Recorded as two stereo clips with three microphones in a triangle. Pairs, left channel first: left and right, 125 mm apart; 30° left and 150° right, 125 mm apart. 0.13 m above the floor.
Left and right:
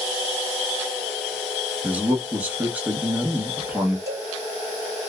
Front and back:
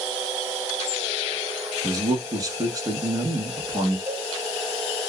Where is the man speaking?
155° right, 1.1 m.